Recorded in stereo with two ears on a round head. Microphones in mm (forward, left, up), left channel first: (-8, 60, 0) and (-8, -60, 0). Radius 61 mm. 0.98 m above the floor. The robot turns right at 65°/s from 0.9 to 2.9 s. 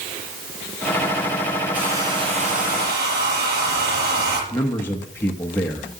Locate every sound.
1.7 s a hair dryer: 170° right, 5.5 m; by 4.4 s 95° right, 5.5 m
4.5 s a man speaking: 15° left (ahead or behind), 0.9 m